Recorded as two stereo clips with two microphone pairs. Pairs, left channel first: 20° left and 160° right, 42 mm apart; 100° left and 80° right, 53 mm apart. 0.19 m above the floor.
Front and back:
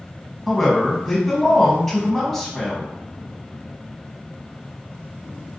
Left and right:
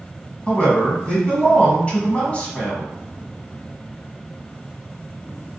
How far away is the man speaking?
About 1.1 m.